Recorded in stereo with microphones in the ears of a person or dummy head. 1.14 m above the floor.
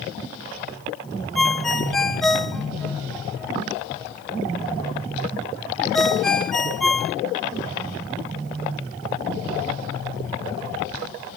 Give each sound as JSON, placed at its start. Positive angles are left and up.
{"t": 1.4, "sound": "a ringtone", "side_deg": 5, "distance_m": 0.8}